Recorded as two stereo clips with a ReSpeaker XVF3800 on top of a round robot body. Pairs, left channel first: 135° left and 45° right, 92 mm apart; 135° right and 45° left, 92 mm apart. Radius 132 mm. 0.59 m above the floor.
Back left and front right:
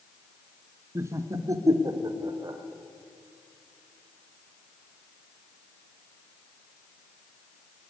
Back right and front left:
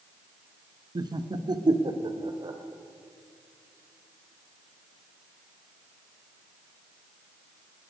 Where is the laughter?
10° left, 1.4 m; by 2.6 s 5° left, 3.5 m.